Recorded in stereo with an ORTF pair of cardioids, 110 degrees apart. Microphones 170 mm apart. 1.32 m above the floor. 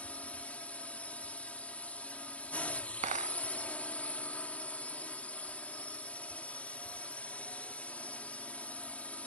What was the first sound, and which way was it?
A drone, 10° left.